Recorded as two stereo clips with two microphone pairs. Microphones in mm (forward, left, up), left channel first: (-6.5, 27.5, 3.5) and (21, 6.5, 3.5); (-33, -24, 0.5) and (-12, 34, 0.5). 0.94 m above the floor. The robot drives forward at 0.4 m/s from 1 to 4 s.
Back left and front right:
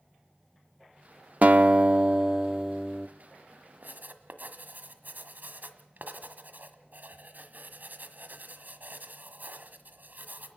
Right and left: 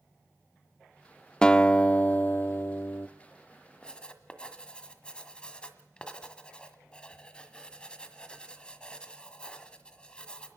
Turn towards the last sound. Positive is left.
turn(degrees=-40)